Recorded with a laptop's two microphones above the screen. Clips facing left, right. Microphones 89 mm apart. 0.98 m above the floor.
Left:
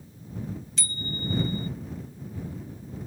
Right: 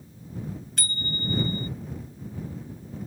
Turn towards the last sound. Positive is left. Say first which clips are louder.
# right 3 dB
turn(degrees=-55)  # may be behind; listen again after turning